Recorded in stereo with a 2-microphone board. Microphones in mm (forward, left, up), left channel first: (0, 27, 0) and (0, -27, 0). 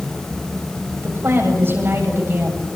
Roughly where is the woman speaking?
Right.